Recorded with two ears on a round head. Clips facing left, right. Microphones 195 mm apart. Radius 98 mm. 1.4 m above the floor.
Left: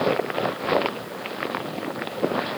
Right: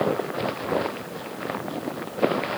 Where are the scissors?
No scissors in this recording.